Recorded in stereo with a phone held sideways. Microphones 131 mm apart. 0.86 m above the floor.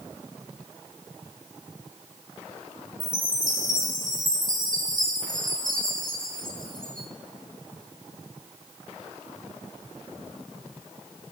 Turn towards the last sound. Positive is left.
turn(degrees=-85)